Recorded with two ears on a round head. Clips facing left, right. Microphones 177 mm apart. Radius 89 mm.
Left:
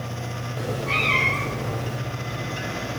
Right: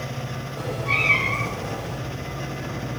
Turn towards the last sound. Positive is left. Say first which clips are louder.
# left 1 dB
turn(degrees=15)  # may be behind; listen again after turning